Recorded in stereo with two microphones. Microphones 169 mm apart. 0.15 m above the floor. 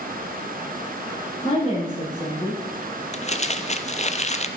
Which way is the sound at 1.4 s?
45° left (ahead or behind).